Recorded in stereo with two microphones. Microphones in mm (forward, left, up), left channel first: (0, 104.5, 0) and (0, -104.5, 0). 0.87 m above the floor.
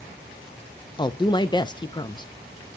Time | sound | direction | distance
1.0 | a woman speaking | 25° left (ahead or behind) | 0.6 m